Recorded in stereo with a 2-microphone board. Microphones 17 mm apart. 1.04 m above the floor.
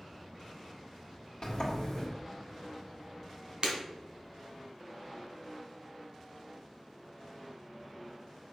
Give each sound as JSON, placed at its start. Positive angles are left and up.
{"t": 1.4, "sound": "a sliding door", "side_deg": 45, "distance_m": 1.6}
{"t": 3.6, "sound": "breaking glass", "side_deg": -75, "distance_m": 2.0}